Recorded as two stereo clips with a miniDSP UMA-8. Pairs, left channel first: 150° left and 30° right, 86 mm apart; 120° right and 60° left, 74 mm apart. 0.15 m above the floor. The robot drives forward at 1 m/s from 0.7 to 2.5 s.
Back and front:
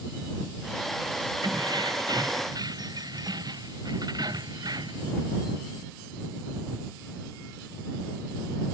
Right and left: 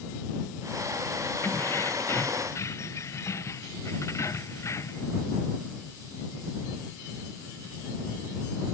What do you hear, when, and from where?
1.4 s keys jangling: 65° right; by 5.1 s 70° right